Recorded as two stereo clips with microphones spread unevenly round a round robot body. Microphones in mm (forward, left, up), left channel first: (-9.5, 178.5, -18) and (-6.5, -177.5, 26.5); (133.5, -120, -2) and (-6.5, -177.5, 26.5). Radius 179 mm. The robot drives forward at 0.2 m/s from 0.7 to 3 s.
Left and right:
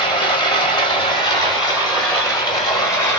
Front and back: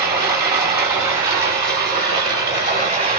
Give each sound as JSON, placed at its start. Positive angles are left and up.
{"t": 0.0, "sound": "running water", "azimuth_deg": 165, "distance_m": 1.4}